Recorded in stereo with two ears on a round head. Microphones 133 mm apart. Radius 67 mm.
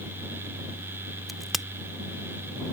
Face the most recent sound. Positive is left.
turn(degrees=0)  # may be behind; listen again after turning